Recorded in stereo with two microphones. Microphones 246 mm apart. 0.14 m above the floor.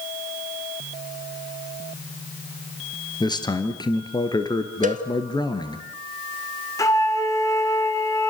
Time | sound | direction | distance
3.2 | a man speaking | 15° left (ahead or behind) | 2.5 m
4.8 | a cowbell | 30° right (ahead or behind) | 1.5 m
6.8 | a flute | 15° left (ahead or behind) | 1.6 m